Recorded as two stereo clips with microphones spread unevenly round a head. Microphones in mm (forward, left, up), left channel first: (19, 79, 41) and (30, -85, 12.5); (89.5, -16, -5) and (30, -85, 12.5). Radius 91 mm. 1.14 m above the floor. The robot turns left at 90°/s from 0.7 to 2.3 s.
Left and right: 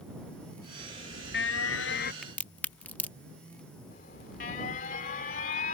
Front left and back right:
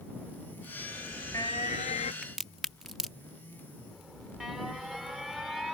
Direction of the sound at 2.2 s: 165° left.